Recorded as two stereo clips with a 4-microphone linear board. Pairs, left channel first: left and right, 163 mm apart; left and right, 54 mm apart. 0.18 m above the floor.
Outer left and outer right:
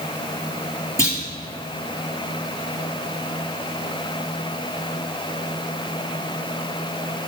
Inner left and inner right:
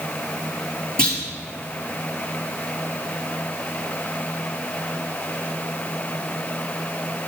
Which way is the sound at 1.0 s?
20° left (ahead or behind).